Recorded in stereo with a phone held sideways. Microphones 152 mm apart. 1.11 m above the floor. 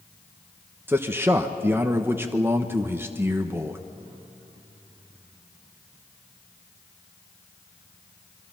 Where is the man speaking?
15° right (ahead or behind), 1.1 m.